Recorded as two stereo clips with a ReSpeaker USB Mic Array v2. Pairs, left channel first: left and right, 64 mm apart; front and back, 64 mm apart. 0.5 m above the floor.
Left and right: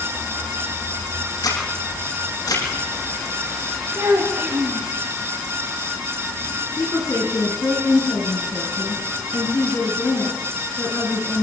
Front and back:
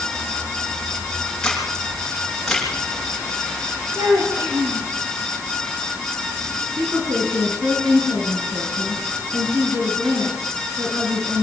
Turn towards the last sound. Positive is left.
turn(degrees=140)